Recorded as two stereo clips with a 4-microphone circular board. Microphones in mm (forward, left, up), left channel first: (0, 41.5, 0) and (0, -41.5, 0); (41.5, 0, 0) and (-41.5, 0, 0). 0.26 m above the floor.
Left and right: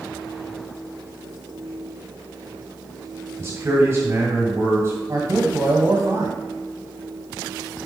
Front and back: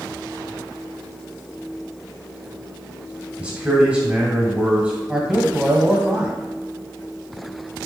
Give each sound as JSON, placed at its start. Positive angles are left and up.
{"t": 3.4, "sound": "a man speaking", "azimuth_deg": -115, "distance_m": 1.5}
{"t": 5.1, "sound": "a man speaking", "azimuth_deg": -105, "distance_m": 1.4}